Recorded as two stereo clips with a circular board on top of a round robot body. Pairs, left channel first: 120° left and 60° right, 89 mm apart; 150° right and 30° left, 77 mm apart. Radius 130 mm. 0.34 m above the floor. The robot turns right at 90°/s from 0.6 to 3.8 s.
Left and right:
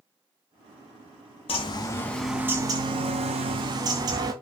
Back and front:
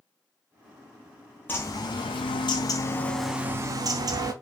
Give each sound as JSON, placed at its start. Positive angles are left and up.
{"t": 1.5, "sound": "a bird", "azimuth_deg": 140, "distance_m": 0.5}